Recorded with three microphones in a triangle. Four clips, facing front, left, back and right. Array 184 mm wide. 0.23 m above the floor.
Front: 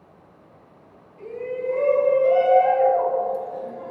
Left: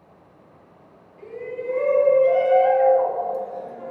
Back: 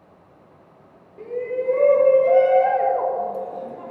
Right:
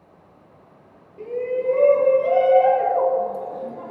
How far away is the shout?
About 5 m.